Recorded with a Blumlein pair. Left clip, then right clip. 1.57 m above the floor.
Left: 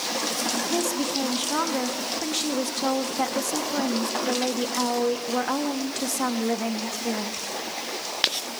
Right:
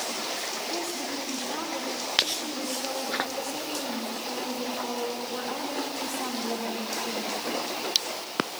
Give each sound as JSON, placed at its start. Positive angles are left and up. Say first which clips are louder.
{"t": 0.7, "sound": "a woman speaking", "louder": "left 6 dB", "azimuth_deg": 60, "distance_m": 2.5}